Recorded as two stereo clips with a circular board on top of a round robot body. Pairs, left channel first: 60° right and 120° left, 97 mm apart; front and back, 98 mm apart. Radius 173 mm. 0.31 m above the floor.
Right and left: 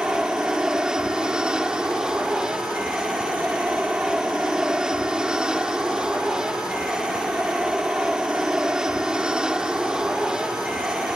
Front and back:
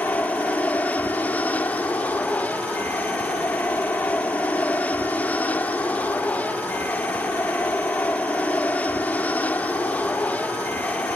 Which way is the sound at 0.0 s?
50° left.